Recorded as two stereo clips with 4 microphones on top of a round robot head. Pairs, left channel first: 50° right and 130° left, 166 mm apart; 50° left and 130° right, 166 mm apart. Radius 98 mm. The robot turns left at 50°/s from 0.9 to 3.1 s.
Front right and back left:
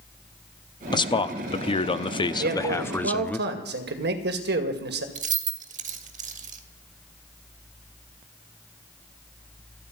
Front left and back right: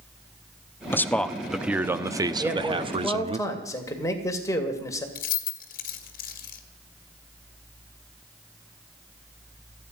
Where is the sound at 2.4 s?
155° left, 2.5 m; by 5.0 s 120° left, 2.5 m.